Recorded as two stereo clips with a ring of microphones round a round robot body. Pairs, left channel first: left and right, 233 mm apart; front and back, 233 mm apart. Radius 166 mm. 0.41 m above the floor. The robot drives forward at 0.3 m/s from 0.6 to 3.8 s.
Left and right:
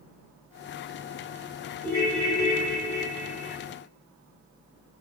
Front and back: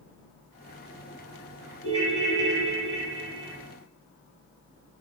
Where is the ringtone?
145° left, 1.6 m; by 3.5 s 155° left, 1.9 m.